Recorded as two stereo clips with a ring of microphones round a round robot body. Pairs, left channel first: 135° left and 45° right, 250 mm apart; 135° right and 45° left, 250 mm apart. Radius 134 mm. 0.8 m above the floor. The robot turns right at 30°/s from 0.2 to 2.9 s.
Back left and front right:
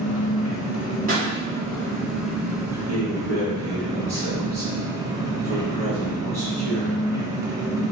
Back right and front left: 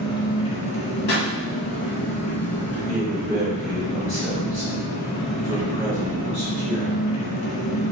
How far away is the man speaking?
About 1.6 m.